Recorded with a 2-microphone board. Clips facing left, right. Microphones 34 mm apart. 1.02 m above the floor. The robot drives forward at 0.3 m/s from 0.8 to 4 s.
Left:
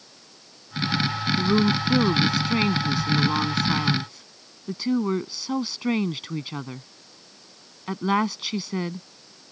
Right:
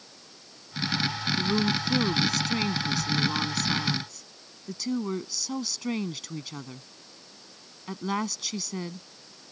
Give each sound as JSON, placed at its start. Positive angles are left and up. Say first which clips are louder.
{"t": 1.4, "sound": "a woman speaking", "louder": "left 5 dB", "side_deg": 30}